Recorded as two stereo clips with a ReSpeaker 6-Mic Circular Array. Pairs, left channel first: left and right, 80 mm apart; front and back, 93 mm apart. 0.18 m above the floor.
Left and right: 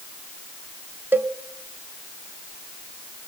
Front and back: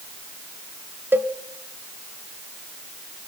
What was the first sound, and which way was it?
A cowbell, 135° right.